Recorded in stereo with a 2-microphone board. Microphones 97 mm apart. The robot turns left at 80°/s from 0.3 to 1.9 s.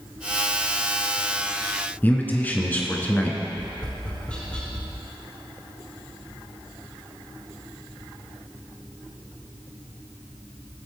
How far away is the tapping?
About 2.5 m.